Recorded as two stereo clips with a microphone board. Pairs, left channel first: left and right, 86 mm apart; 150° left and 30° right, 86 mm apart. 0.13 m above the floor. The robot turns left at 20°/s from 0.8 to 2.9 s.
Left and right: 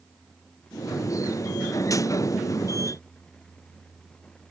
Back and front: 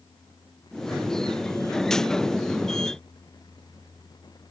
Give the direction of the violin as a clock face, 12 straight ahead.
I don't hear a violin.